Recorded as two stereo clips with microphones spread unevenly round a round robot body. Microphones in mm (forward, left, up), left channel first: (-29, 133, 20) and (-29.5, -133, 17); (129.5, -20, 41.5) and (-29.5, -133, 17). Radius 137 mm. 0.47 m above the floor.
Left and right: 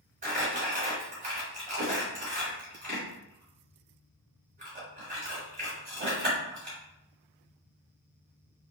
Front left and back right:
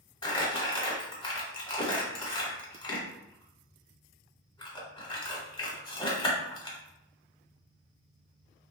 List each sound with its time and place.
0.2 s crumpling: 35° right, 1.4 m